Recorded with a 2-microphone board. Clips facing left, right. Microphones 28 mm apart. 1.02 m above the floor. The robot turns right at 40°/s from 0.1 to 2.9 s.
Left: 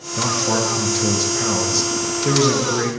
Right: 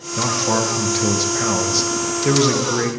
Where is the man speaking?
10° right (ahead or behind), 0.8 m.